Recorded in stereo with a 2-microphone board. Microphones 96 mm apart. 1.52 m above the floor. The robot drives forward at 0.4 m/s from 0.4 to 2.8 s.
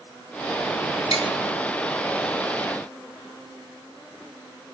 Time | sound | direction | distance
1.1 | tapping | 75° left (ahead or behind) | 1.4 m